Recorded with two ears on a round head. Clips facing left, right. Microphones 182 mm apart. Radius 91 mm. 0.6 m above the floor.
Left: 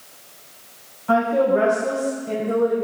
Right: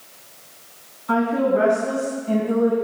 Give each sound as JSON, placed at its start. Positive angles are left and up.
{"t": 1.1, "sound": "a woman speaking", "side_deg": 70, "distance_m": 3.0}